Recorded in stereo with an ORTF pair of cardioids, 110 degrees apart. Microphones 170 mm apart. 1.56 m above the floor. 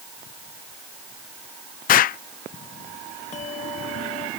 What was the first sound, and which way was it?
An explosion, 55° left.